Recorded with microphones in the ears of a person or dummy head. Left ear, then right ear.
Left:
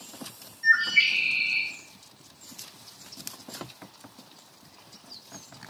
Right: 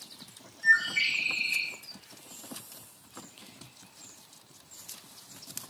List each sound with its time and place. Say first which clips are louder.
0.6 s a bird: left 3 dB; 10° left (ahead or behind), 3 m